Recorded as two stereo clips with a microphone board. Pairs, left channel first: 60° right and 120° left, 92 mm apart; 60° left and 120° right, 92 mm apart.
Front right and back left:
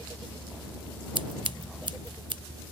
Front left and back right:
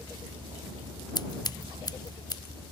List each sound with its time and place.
0.0 s a vehicle: 135° right; by 2.7 s 140° right
1.1 s scissors: 100° left